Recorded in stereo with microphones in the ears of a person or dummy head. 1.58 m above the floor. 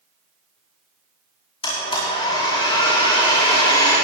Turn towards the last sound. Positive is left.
turn(degrees=25)  # may be behind; listen again after turning